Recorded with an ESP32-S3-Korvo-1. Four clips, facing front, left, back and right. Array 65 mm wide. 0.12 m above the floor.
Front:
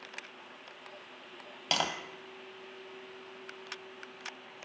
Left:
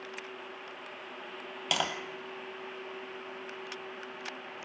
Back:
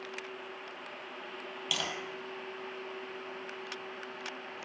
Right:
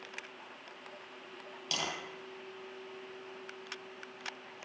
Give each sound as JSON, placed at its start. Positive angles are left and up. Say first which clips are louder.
{"t": 1.7, "sound": "tapping", "louder": "left 6 dB, front 5 dB", "azimuth_deg": 50, "distance_m": 2.0}